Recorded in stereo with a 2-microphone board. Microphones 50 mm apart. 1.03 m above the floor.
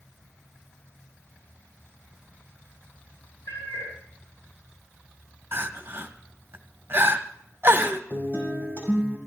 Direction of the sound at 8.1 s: 40° left (ahead or behind).